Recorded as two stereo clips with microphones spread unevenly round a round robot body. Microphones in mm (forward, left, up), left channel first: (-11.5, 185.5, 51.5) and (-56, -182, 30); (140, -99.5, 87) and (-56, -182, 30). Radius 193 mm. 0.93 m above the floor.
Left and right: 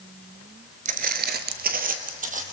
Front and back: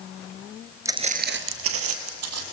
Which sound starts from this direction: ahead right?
Footsteps, at 0.8 s.